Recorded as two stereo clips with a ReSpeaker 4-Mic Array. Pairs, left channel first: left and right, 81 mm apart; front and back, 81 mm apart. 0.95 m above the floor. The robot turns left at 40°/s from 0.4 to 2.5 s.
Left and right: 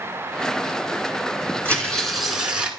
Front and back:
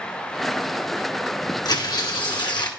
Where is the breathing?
I don't hear breathing.